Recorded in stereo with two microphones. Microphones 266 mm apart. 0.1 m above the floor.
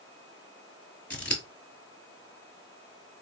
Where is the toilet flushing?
No toilet flushing in this recording.